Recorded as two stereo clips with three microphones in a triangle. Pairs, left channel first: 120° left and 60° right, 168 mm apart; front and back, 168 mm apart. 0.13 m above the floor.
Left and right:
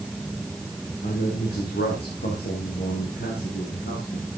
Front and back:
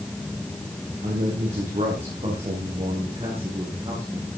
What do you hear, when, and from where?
1.0 s a man speaking: 135° left, 7.5 m; by 4.3 s 120° left, 9.5 m